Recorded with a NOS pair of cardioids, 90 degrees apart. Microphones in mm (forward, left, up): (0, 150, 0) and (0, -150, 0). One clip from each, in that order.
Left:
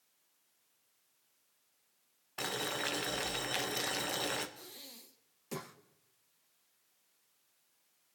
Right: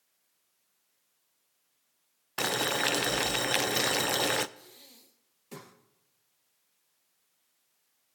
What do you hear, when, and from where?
2.4 s boiling: 40° right, 0.6 m
4.6 s breathing: 25° left, 1.0 m